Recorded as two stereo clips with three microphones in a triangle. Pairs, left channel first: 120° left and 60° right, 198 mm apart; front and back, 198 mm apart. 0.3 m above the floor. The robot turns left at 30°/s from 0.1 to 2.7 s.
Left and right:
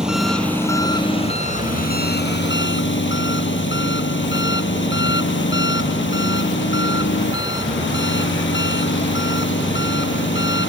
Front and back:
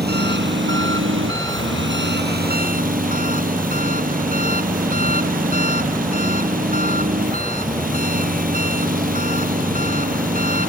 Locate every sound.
0.0 s an engine running: 145° right; by 10.7 s 135° left